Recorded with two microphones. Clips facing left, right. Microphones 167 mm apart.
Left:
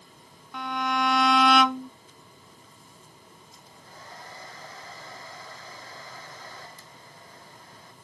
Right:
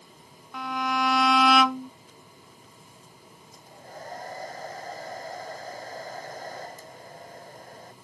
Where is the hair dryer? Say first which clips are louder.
Right 9 dB; 45° right (ahead or behind).